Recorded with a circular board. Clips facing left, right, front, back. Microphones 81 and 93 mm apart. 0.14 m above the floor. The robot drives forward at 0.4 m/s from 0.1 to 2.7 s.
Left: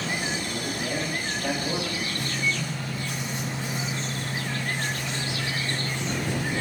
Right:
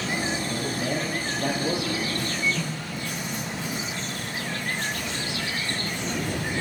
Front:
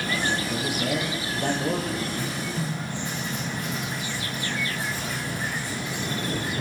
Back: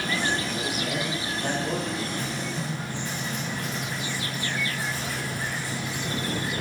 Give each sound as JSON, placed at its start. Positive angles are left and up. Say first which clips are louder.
{"t": 0.5, "sound": "a man speaking", "louder": "right 2 dB, front 2 dB", "azimuth_deg": -35, "distance_m": 3.0}
{"t": 2.2, "sound": "writing", "louder": "right 1 dB, front 1 dB", "azimuth_deg": -65, "distance_m": 4.5}